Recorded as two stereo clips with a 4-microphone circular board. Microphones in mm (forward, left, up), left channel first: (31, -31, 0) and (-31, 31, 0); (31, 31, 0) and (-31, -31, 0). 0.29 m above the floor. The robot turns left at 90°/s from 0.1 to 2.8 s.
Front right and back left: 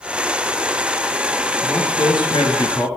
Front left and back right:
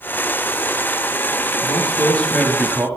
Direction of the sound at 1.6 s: 25° left.